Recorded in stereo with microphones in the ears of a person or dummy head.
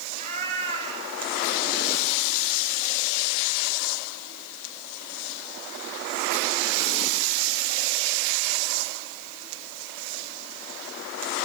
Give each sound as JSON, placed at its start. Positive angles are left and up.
{"t": 0.1, "sound": "a cat meowing", "side_deg": -45, "distance_m": 5.0}